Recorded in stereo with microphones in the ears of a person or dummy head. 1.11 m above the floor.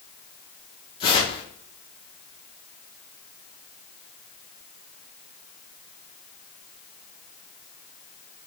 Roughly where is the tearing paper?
Left.